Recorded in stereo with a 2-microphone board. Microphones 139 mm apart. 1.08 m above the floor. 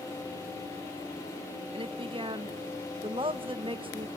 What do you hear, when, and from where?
1.7 s a woman speaking: 40° right (ahead or behind), 1.2 m